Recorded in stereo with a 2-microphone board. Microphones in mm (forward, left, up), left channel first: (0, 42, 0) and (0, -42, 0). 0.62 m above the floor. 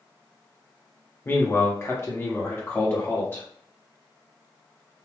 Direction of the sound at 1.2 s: 25° left (ahead or behind).